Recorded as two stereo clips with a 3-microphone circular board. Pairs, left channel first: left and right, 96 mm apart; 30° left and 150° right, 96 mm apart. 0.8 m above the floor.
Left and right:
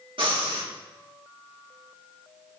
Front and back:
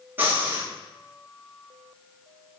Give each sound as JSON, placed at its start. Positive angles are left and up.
{"t": 0.2, "sound": "breathing", "azimuth_deg": -85, "distance_m": 1.4}